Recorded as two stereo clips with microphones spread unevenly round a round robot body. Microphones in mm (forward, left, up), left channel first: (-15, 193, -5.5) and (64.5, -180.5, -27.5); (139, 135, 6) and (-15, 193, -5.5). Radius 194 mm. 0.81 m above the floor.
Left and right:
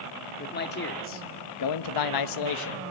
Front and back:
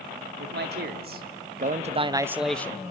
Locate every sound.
0.4 s a man speaking: 170° left, 1.6 m; by 2.9 s 50° left, 1.0 m